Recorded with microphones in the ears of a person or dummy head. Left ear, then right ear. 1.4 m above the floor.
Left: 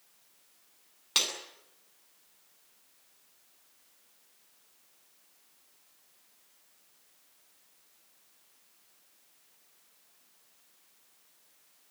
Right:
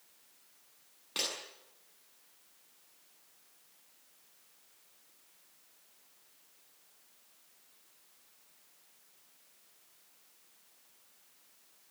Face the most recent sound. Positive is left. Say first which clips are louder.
# left 7 dB
turn(degrees=45)  # may be behind; listen again after turning